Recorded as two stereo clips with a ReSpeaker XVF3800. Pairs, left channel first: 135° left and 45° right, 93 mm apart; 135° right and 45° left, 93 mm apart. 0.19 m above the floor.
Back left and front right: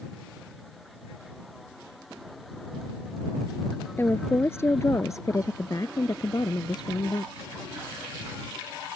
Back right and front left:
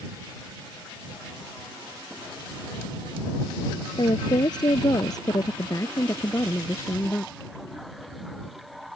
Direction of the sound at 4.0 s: 160° right.